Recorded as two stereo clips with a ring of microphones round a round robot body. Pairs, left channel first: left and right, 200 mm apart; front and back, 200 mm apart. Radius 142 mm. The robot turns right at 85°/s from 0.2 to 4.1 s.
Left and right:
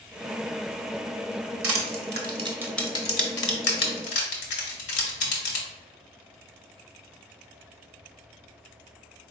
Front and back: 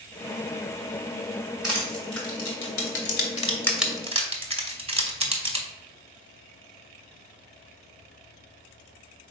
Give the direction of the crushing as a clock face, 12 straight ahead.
3 o'clock.